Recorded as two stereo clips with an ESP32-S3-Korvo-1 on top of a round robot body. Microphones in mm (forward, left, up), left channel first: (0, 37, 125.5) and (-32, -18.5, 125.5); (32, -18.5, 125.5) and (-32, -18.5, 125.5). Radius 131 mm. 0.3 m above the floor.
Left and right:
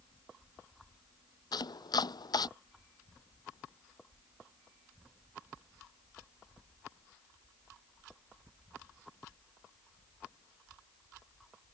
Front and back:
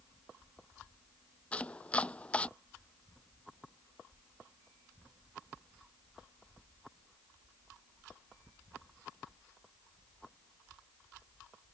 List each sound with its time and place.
1.5 s chopping: 75° left